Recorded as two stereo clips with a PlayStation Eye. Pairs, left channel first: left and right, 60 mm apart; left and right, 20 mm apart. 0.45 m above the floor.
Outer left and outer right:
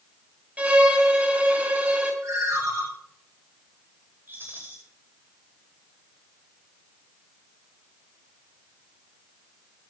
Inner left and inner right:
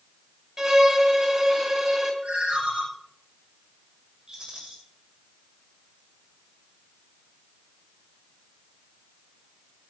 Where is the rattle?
40° right (ahead or behind), 9 m.